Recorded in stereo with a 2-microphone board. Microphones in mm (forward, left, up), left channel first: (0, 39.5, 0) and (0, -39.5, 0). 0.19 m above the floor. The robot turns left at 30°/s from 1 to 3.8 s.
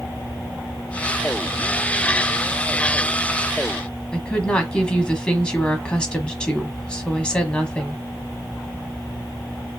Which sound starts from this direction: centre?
A woman speaking, at 4.1 s.